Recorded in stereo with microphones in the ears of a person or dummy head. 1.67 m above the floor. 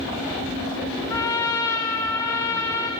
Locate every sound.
1.1 s a trumpet: 15° left (ahead or behind), 0.5 m